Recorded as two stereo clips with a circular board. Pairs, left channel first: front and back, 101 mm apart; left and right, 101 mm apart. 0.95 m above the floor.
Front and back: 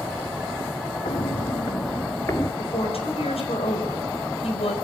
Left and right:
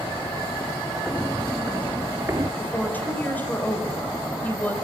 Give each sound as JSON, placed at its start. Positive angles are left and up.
{"t": 1.1, "sound": "footsteps", "azimuth_deg": 5, "distance_m": 1.6}
{"t": 2.6, "sound": "a woman speaking", "azimuth_deg": 15, "distance_m": 4.5}